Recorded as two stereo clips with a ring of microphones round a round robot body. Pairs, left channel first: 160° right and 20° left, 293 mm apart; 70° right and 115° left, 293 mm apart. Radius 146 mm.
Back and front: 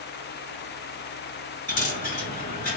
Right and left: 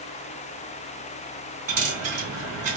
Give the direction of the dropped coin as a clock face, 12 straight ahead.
7 o'clock.